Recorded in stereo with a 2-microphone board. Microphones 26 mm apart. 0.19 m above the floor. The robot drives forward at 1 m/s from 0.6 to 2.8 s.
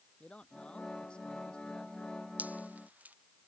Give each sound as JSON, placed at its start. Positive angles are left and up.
{"t": 0.2, "sound": "a man speaking", "side_deg": 45}
{"t": 2.4, "sound": "dripping", "side_deg": -80}